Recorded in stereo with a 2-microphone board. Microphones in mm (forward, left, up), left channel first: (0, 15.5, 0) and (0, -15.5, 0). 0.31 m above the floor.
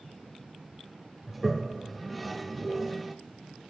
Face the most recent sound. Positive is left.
turn(degrees=0)  # may be behind; listen again after turning